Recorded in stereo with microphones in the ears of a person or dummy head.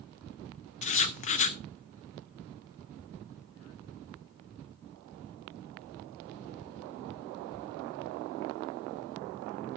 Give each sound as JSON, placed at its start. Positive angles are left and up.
{"t": 0.8, "sound": "writing", "side_deg": 35, "distance_m": 0.8}